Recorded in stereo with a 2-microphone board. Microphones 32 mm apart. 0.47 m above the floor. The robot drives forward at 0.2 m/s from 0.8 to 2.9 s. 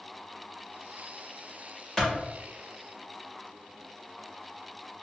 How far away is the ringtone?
I don't hear a ringtone.